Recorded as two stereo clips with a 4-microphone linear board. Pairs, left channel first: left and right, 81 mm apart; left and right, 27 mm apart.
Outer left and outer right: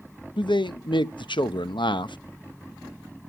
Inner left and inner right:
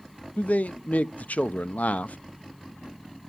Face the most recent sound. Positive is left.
turn(degrees=75)  # may be behind; listen again after turning